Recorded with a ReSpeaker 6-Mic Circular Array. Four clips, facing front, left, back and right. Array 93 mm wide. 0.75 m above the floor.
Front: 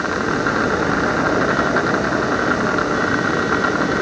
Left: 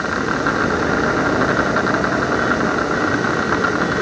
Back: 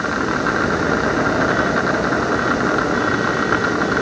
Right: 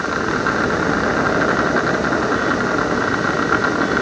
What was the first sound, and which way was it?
Only background noise.